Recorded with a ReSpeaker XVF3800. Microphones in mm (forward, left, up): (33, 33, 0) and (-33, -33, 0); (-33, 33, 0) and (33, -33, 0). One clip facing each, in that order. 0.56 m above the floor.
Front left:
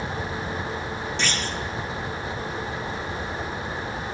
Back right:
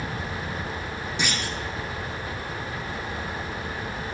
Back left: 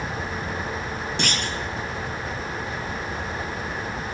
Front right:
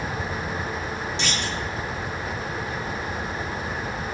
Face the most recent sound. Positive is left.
turn(degrees=150)